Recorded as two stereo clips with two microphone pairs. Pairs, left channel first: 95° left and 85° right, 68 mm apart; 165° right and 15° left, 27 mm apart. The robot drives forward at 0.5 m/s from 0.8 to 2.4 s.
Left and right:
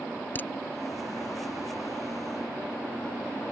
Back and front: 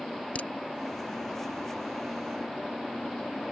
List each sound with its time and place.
0.3 s a crack: 155° left